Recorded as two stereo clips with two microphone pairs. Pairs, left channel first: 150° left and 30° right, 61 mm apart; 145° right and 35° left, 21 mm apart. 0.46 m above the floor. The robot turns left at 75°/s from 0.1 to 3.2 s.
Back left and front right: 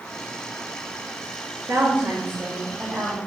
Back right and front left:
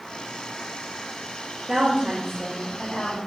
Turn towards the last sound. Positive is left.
turn(degrees=-145)